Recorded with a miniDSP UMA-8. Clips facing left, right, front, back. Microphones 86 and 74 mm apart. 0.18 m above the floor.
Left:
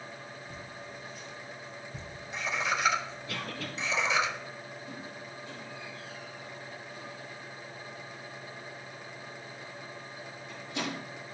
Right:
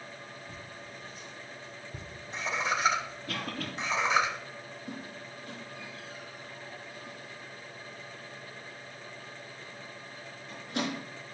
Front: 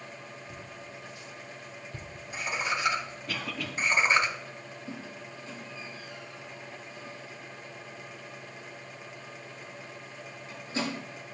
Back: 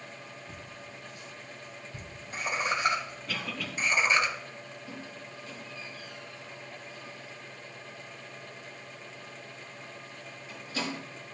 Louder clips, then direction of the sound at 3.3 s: Right 2 dB, front 1 dB; 85° right.